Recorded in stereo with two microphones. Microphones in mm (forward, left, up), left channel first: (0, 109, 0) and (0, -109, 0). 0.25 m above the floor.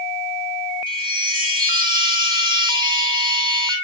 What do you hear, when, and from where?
0.9 s a chime: 45° right (ahead or behind), 4.5 m